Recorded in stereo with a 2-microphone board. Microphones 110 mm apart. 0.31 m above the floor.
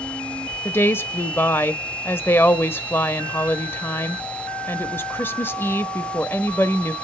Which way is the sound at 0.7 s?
20° left (ahead or behind).